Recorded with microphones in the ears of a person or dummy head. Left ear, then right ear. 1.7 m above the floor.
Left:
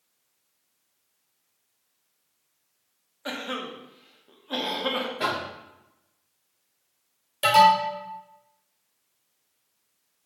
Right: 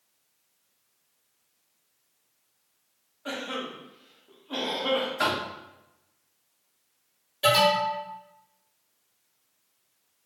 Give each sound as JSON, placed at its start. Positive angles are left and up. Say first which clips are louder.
{"t": 3.2, "sound": "a cough", "louder": "left 1 dB", "side_deg": 25, "distance_m": 0.7}
{"t": 5.2, "sound": "knocking", "louder": "right 1 dB", "side_deg": -60, "distance_m": 1.5}
{"t": 7.4, "sound": "an alarm", "louder": "left 4 dB", "side_deg": 30, "distance_m": 0.8}